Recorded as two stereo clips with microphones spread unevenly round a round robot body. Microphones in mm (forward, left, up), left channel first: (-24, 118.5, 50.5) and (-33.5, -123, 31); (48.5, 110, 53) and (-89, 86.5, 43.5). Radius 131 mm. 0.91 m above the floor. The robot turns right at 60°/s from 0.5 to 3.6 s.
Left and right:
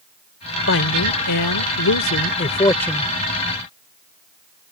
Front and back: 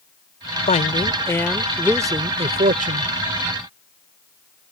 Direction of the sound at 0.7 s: 40° left.